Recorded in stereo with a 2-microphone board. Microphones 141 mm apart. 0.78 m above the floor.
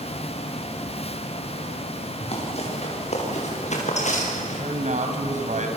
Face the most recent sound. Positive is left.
turn(degrees=-60)  # may be behind; listen again after turning